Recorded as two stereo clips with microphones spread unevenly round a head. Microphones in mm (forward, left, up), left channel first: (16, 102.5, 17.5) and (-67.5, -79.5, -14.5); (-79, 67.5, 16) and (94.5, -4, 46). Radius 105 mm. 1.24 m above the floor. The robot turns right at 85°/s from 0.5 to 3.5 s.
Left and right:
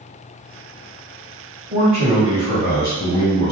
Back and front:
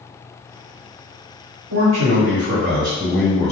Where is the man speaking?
50° right, 1.6 m; by 3.5 s 105° left, 1.6 m.